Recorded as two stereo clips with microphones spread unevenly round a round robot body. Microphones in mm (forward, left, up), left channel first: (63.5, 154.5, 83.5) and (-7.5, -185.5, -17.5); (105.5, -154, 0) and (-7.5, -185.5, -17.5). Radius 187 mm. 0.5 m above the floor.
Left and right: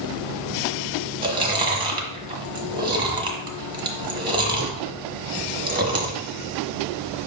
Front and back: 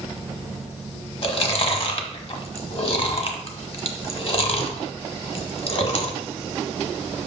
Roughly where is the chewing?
Ahead right.